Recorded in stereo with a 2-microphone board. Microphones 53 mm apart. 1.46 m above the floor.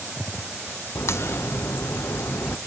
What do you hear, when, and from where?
0.9 s a crack: 55° left (ahead or behind), 0.7 m